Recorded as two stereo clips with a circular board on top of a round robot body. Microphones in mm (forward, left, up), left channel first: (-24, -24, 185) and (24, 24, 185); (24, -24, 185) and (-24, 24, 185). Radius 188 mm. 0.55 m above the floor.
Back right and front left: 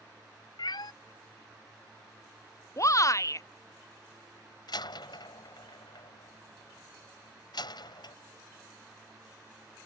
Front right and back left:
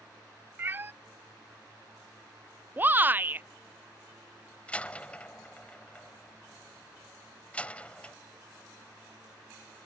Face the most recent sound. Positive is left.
turn(degrees=-120)